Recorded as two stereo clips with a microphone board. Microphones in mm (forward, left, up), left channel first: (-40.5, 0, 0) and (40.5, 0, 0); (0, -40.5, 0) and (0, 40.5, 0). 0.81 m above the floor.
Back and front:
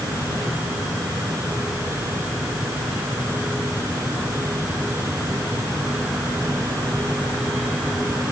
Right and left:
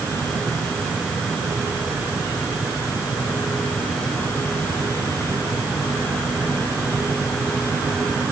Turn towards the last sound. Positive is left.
No sound to turn to.